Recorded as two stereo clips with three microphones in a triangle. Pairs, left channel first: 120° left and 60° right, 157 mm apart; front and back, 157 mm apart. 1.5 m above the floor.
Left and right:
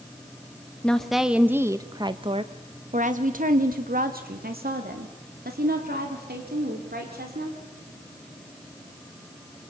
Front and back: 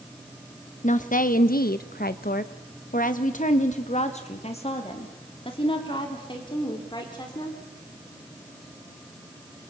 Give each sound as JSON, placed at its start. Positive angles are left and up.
{"t": 0.8, "sound": "a woman speaking", "azimuth_deg": 35, "distance_m": 1.4}